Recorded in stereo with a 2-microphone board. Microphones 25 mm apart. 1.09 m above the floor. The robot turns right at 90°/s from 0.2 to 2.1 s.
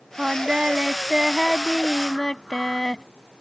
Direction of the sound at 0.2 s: 130° right.